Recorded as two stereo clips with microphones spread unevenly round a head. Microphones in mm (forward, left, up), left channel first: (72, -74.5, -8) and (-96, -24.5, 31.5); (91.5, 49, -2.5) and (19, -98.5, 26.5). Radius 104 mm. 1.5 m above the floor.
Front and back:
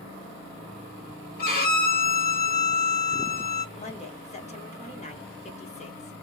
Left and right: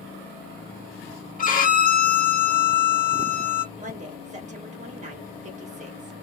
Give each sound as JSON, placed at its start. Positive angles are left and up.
{"t": 1.4, "sound": "a violin", "azimuth_deg": 30, "distance_m": 1.4}
{"t": 3.8, "sound": "a woman speaking", "azimuth_deg": -70, "distance_m": 2.5}